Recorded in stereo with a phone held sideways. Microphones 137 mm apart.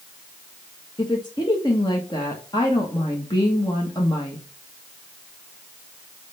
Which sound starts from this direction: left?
A woman speaking, at 1.0 s.